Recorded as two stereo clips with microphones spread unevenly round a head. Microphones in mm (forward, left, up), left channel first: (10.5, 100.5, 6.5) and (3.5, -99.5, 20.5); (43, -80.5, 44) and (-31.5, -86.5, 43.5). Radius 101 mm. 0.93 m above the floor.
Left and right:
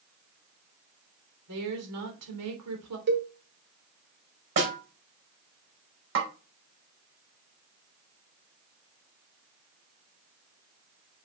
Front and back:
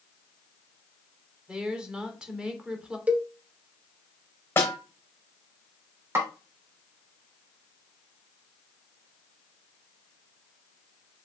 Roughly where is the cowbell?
Right.